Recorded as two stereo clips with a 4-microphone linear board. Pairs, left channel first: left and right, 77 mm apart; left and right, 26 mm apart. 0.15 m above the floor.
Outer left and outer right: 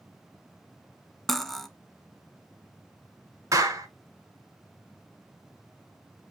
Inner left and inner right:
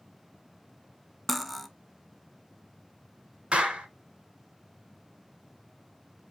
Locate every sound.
1.3 s cutlery clinking: 5° left (ahead or behind), 0.6 m
3.5 s a clap: 40° right (ahead or behind), 1.3 m